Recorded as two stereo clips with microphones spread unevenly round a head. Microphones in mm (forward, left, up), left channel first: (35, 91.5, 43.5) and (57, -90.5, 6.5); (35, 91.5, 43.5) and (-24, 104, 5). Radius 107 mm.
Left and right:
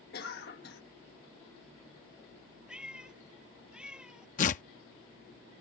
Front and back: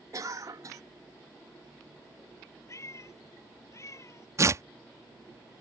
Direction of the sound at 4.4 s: 105° left.